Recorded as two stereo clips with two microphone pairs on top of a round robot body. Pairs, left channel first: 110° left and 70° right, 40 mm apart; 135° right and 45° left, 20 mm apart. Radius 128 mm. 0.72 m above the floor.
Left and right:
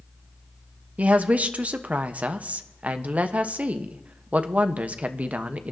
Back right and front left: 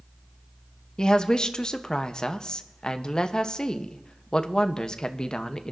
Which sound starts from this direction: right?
A woman speaking, at 1.0 s.